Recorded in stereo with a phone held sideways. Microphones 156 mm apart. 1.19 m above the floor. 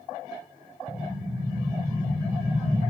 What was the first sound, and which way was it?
An explosion, 20° right (ahead or behind).